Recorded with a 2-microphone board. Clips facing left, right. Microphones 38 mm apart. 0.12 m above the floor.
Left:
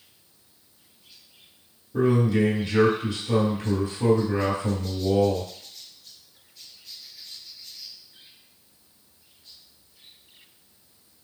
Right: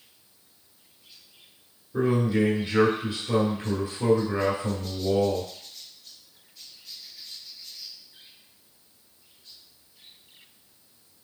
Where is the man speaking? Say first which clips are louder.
Left 2 dB; 20° right (ahead or behind), 2 m.